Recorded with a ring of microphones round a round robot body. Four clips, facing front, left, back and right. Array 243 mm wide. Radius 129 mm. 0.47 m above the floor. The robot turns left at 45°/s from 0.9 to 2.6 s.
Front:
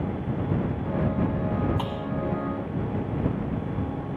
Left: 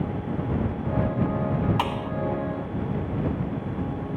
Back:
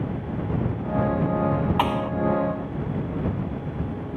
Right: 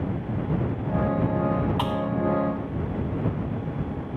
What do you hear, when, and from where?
1.8 s a thud: 165° left; by 2.1 s 150° left